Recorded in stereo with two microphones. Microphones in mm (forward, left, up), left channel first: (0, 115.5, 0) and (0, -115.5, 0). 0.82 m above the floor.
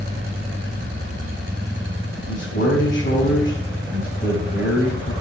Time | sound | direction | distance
2.3 | a man speaking | 50° left (ahead or behind) | 8.5 m